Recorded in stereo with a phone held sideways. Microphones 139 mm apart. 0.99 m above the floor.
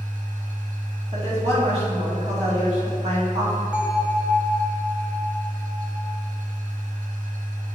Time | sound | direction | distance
0.0 | a machine running | 65° right (ahead or behind) | 1.1 m
1.1 | a woman speaking | 50° right (ahead or behind) | 2.0 m
3.7 | a bell | 10° right (ahead or behind) | 0.7 m